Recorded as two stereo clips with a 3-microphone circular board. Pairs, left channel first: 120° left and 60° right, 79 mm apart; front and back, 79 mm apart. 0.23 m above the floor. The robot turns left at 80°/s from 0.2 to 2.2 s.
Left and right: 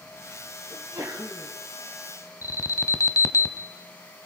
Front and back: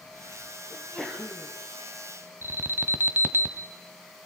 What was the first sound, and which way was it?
A sneeze, 65° right.